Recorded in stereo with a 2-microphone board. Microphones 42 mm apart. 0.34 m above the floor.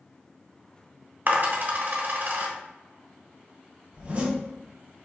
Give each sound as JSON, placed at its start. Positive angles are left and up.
{"t": 1.3, "sound": "a dropped coin", "side_deg": -55, "distance_m": 0.8}
{"t": 3.9, "sound": "a zipper", "side_deg": -30, "distance_m": 1.7}